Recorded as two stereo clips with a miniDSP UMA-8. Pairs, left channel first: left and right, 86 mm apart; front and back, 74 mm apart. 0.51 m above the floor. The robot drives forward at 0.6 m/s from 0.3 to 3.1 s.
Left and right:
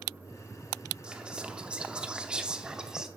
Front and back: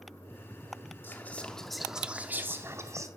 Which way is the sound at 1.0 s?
20° right.